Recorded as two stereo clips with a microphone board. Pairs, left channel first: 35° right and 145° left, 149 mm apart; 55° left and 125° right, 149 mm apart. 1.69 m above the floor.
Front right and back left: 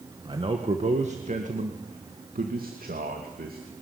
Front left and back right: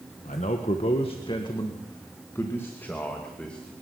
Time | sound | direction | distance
0.2 | a man speaking | 90° left | 1.7 m